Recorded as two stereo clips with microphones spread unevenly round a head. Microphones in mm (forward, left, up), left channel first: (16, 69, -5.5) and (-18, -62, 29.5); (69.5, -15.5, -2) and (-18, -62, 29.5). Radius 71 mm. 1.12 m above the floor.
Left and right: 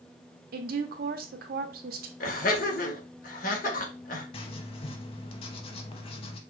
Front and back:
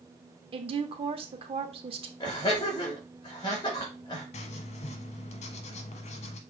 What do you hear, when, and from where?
0.5 s a woman speaking: 120° right, 1.0 m
2.2 s laughter: 80° left, 1.7 m
4.3 s writing: 20° left, 0.7 m